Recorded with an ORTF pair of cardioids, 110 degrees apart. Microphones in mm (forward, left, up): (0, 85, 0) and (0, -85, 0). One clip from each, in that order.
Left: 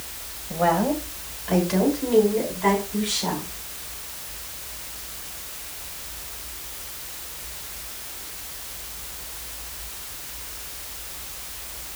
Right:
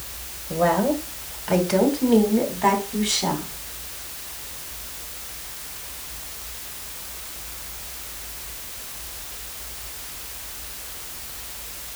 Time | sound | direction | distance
0.5 | a woman speaking | 25° right | 2.5 m